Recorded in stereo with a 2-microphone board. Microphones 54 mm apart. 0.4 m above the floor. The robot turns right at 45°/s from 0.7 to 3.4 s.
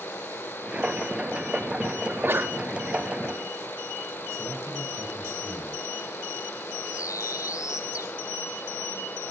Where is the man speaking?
70° right (ahead or behind), 7 m.